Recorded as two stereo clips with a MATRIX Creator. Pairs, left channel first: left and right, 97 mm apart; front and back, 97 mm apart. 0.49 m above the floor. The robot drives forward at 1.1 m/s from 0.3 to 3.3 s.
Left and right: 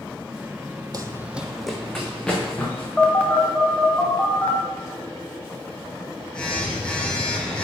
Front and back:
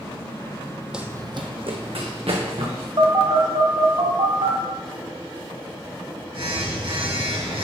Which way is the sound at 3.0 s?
165° left.